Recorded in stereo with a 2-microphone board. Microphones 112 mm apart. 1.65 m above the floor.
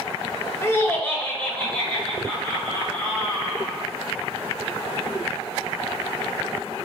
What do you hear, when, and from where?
0.6 s laughter: 25° left (ahead or behind), 0.7 m; by 3.8 s 5° left (ahead or behind), 4 m